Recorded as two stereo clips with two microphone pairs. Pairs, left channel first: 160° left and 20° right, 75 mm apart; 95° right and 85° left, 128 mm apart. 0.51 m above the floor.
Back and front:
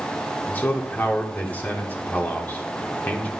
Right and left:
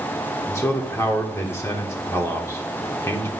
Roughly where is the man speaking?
Behind right.